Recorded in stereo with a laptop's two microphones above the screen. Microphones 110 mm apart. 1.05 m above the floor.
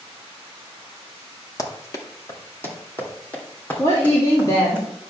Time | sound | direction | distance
1.6 | running footsteps | 30° left (ahead or behind) | 1.2 m
3.8 | a woman speaking | 40° left (ahead or behind) | 2 m